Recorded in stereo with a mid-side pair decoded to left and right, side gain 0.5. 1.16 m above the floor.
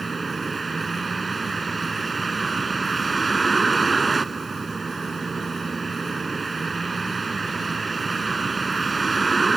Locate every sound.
0.0 s a vehicle: 25° right